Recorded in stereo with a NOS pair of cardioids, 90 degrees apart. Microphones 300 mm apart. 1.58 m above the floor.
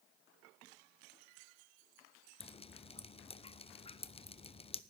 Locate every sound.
2.4 s dripping: 20° left, 0.8 m